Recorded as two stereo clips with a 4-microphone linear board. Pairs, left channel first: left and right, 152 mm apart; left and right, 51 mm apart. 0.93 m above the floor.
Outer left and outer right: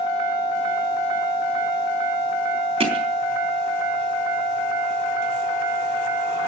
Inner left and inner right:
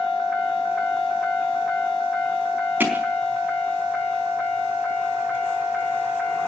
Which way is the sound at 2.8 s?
40° right (ahead or behind).